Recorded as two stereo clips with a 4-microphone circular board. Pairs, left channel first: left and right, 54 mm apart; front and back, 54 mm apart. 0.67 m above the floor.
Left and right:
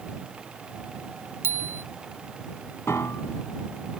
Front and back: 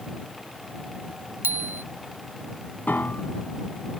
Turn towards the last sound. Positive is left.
turn(degrees=55)